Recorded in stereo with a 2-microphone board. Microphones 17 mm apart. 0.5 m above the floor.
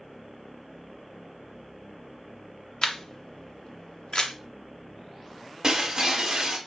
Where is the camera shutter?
50° left (ahead or behind), 0.6 m.